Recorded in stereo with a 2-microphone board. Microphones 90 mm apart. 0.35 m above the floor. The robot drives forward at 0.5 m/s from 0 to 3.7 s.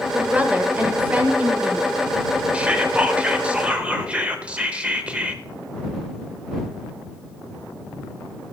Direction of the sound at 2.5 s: 15° right (ahead or behind).